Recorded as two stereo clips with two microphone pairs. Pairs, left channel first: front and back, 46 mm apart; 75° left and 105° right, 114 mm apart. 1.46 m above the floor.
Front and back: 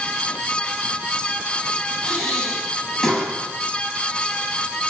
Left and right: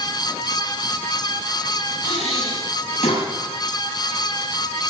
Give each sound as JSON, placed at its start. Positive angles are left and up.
{"t": 2.0, "sound": "breathing", "azimuth_deg": 90, "distance_m": 6.5}